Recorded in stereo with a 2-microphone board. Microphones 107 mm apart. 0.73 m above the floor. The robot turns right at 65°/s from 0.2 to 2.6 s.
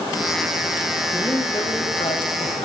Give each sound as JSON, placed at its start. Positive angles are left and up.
{"t": 1.1, "sound": "a man speaking", "azimuth_deg": 20, "distance_m": 4.5}